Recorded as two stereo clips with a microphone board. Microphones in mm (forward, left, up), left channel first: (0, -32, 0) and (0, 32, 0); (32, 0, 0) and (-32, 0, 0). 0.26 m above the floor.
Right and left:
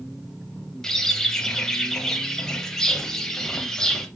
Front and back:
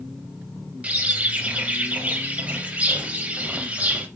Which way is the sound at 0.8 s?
155° right.